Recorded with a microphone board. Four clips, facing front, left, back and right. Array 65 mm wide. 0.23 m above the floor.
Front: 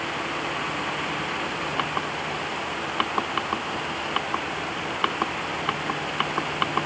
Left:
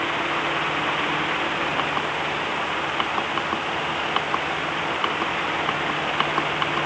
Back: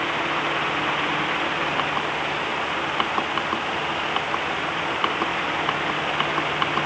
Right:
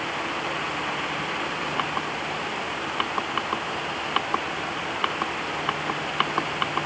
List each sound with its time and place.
Only background noise.